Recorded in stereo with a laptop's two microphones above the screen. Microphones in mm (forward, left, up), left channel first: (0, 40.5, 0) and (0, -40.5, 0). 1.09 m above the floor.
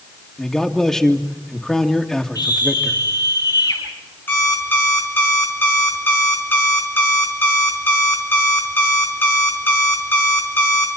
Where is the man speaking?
5° left (ahead or behind), 2.5 m.